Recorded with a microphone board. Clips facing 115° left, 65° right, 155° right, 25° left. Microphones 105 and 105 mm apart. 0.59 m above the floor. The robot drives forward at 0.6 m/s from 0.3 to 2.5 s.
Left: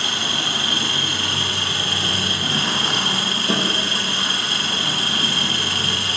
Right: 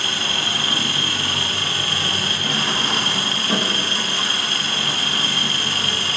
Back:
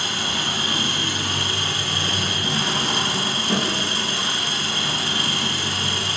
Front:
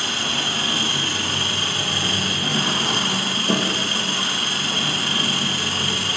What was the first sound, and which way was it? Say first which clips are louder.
An engine running: even, even; 45° left.